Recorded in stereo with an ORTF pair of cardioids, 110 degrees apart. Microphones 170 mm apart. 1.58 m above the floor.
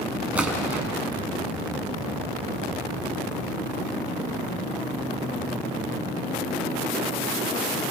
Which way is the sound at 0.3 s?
5° right.